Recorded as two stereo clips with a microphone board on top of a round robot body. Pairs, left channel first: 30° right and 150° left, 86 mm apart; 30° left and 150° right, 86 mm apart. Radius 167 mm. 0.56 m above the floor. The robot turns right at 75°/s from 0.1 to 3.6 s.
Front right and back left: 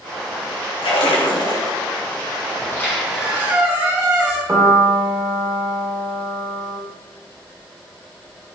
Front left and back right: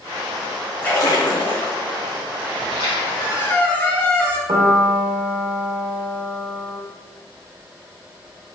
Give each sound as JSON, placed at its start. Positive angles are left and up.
{"t": 0.8, "sound": "a splash", "azimuth_deg": -45, "distance_m": 1.7}
{"t": 2.6, "sound": "a squeak", "azimuth_deg": 25, "distance_m": 3.0}
{"t": 4.5, "sound": "a piano", "azimuth_deg": -150, "distance_m": 1.6}